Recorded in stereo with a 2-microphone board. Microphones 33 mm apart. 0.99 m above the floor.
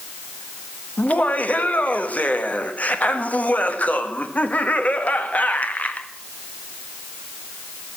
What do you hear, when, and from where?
1.0 s laughter: 45° left (ahead or behind), 1.4 m